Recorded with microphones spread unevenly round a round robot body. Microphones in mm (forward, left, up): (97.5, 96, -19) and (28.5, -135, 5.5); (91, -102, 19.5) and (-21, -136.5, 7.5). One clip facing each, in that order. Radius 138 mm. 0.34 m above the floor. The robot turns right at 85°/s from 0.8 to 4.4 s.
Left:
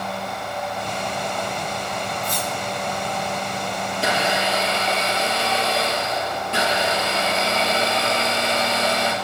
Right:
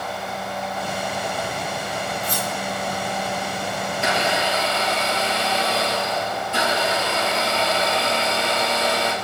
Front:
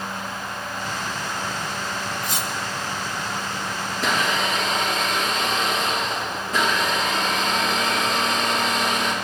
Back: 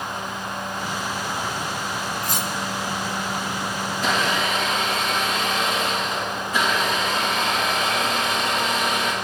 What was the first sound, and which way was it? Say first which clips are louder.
Cutlery clinking: even, back 1 dB; straight behind.